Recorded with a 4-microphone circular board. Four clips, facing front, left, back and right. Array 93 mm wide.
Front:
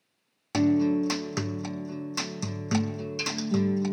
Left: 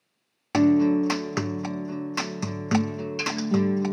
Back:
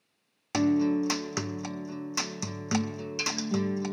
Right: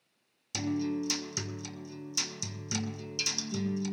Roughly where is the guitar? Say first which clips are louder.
Left 13 dB, front 2 dB; left.